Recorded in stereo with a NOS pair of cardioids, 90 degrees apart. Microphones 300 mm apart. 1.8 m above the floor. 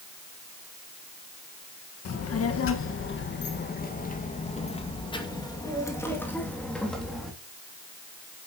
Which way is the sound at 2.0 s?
60° left.